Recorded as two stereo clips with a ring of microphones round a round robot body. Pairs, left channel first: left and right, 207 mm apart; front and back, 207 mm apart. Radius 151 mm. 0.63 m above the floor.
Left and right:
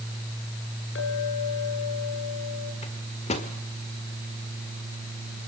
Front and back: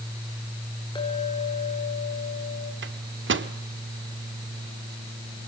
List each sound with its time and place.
0.9 s a clink: 70° left, 6.5 m
2.8 s a microwave: 155° left, 1.3 m